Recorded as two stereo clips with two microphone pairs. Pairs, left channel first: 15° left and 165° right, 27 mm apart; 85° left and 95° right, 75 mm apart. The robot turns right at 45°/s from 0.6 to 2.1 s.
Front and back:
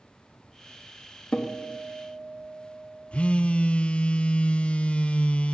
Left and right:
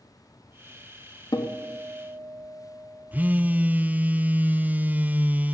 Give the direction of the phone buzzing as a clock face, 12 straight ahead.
1 o'clock.